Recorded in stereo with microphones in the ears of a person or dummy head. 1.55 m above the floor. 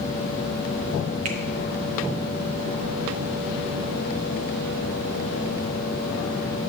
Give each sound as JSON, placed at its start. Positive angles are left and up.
{"t": 1.2, "sound": "a finger snap", "side_deg": -35, "distance_m": 0.8}